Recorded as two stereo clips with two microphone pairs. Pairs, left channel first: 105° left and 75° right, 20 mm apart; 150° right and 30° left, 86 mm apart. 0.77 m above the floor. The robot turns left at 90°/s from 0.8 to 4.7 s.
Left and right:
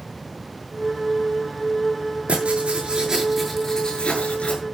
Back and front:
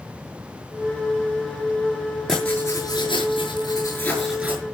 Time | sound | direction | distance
2.3 | writing | 65° right | 7 m